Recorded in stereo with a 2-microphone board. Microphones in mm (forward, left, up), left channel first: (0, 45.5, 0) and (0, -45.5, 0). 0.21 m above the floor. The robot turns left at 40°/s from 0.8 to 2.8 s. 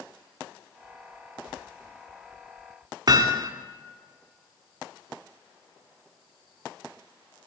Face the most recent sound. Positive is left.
turn(degrees=-50)  # may be behind; listen again after turning